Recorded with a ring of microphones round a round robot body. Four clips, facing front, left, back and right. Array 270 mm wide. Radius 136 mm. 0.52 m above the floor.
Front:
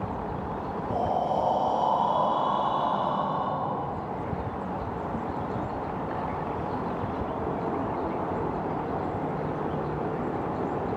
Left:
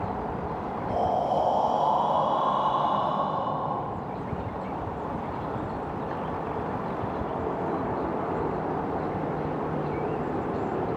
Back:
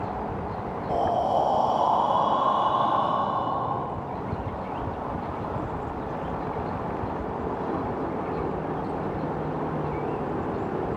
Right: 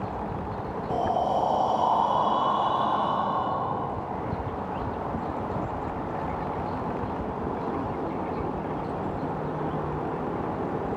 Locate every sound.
0.9 s breathing: 165° right, 3 m